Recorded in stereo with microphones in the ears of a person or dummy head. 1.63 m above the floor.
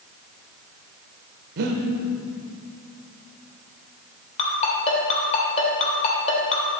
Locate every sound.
1.6 s breathing: 50° right (ahead or behind), 1.0 m
4.4 s a ringtone: 45° left (ahead or behind), 2.5 m